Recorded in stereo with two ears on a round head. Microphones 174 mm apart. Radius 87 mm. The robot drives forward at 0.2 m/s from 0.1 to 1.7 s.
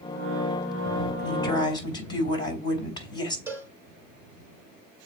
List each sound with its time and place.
1.2 s a woman speaking: 25° left (ahead or behind), 4.5 m
3.5 s a cowbell: 10° right (ahead or behind), 1.7 m